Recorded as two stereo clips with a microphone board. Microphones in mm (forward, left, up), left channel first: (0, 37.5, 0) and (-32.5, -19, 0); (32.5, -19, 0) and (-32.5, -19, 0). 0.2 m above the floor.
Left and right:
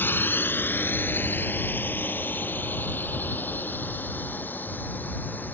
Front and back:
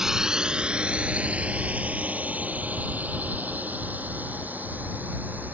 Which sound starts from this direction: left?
A drone, at 0.0 s.